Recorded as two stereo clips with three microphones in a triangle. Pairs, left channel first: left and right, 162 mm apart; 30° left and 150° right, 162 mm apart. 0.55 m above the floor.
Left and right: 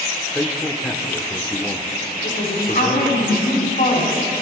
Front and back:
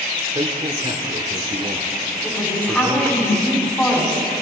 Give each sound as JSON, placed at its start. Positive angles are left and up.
{"t": 0.3, "sound": "a man speaking", "azimuth_deg": 170, "distance_m": 1.1}
{"t": 2.2, "sound": "a man speaking", "azimuth_deg": 110, "distance_m": 4.0}